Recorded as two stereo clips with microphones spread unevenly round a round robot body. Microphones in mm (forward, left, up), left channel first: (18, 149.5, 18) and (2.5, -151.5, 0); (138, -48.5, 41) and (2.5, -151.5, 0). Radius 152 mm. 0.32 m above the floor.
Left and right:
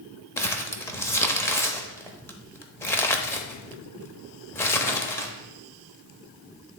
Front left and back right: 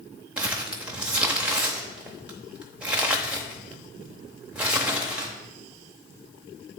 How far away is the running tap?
No running tap in this recording.